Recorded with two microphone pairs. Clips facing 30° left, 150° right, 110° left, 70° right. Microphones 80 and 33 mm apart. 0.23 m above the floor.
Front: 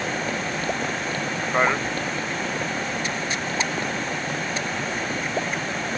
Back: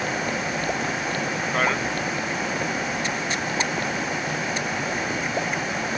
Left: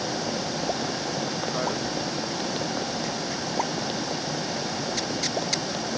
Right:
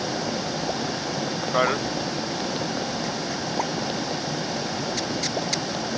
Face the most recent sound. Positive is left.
turn(degrees=-45)